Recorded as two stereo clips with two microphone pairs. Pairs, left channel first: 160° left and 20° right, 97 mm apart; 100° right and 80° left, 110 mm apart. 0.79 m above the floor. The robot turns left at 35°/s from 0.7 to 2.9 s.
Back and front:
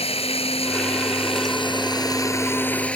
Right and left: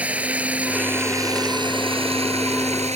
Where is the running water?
160° left; by 3.0 s 80° left.